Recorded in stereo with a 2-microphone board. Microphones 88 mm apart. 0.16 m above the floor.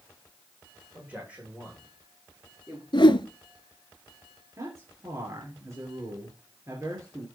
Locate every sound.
0.9 s a man speaking: 15° right (ahead or behind), 8.5 m; by 2.8 s 10° right (ahead or behind), 7.5 m
2.9 s a whoosh: 65° left (ahead or behind), 0.8 m
4.6 s a man speaking: 35° right (ahead or behind), 3.5 m